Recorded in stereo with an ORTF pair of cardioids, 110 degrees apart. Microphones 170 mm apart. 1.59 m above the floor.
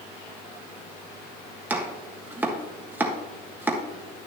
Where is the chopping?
10° right, 1.5 m.